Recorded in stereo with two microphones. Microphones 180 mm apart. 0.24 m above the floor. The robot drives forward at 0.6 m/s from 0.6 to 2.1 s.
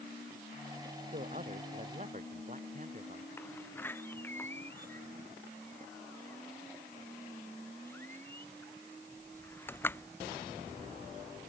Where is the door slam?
10° left (ahead or behind).